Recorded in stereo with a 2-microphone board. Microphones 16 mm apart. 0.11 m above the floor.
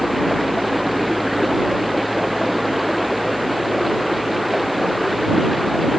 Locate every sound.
0.0 s running water: centre (ahead or behind)